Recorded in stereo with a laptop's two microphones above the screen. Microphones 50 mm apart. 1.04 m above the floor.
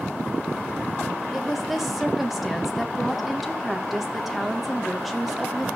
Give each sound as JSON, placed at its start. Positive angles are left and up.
{"t": 1.3, "sound": "a woman speaking", "side_deg": 0, "distance_m": 1.3}